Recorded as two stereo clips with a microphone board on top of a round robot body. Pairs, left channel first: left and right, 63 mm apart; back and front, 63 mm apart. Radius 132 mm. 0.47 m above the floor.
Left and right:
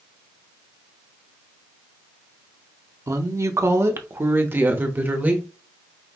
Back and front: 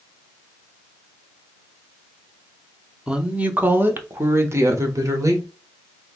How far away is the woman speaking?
About 1.1 m.